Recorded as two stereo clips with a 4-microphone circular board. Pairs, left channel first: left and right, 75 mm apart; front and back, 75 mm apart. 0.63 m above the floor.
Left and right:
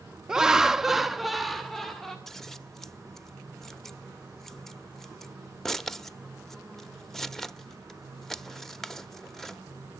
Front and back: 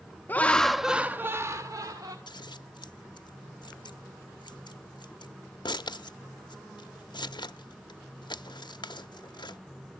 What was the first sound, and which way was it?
Laughter, 20° right.